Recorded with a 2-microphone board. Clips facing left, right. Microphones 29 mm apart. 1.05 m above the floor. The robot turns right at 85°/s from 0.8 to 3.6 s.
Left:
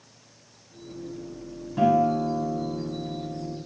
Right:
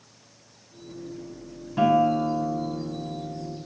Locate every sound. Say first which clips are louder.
1.8 s a guitar: right 1 dB; 165° right, 7.5 m; by 3.6 s 10° right, 7.5 m